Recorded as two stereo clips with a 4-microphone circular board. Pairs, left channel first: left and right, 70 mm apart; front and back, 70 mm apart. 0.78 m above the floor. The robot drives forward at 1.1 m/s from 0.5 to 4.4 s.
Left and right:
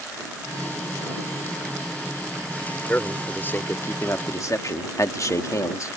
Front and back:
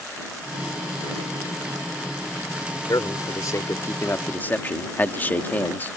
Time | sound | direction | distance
2.9 | a man speaking | 25° left | ?